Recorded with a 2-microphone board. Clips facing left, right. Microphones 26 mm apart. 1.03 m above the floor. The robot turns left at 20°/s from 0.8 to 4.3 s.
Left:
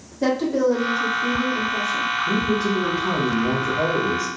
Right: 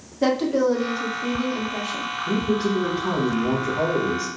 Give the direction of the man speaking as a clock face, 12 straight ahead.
3 o'clock.